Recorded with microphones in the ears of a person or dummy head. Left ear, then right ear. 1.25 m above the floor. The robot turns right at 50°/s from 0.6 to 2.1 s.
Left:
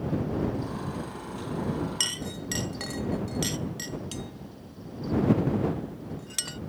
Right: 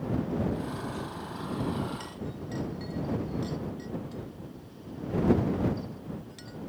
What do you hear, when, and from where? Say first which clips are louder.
2.0 s a clink: left 9 dB; 70° left (ahead or behind); by 6.6 s 65° left (ahead or behind)